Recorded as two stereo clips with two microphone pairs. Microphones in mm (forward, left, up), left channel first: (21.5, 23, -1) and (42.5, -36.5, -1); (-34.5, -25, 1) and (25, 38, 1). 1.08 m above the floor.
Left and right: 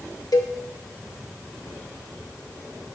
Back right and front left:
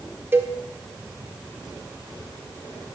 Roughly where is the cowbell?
Left.